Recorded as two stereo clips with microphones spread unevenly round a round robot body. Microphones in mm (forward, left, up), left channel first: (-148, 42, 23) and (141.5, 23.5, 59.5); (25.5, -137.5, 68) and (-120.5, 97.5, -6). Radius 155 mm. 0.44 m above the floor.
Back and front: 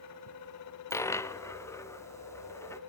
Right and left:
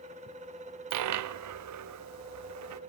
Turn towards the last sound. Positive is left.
turn(degrees=95)